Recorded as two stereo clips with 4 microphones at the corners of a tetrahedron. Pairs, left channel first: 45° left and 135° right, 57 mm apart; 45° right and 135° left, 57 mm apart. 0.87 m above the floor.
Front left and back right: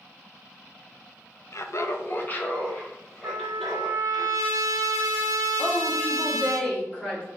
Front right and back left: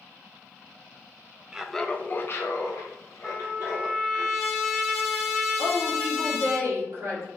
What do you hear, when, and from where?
1.5 s laughter: 60° left, 0.5 m; by 4.2 s 35° right, 2.0 m
3.2 s a trumpet: 140° right, 0.9 m
5.6 s a woman speaking: 110° left, 1.7 m